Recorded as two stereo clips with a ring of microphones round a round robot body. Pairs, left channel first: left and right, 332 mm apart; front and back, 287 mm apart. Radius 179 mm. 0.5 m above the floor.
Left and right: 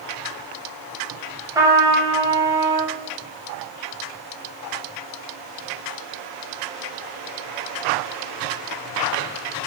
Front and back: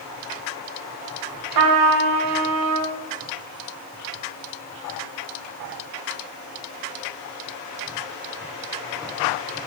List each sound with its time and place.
1.6 s a trumpet: 170° right, 1.4 m